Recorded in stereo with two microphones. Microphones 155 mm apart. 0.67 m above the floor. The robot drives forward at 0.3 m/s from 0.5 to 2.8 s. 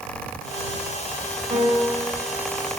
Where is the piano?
45° right (ahead or behind), 1.3 m; by 2.3 s 35° right (ahead or behind), 1.5 m.